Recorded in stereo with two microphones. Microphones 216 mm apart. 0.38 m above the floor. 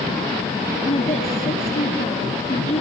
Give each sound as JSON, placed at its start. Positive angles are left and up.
{"t": 0.8, "sound": "a woman speaking", "side_deg": 30, "distance_m": 5.5}